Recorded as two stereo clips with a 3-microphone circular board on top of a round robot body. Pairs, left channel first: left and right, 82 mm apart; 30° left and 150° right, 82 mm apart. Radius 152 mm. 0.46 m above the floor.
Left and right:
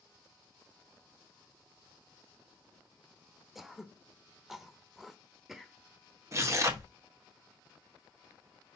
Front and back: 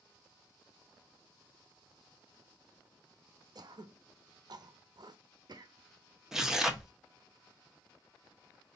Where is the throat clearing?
175° right, 0.7 m.